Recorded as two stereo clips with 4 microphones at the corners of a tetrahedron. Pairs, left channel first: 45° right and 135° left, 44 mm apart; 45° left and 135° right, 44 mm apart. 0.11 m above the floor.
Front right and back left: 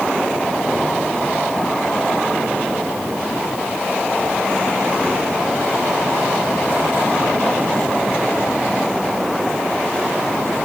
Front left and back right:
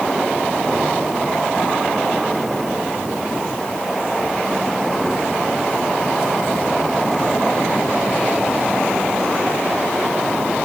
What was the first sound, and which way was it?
Only background noise.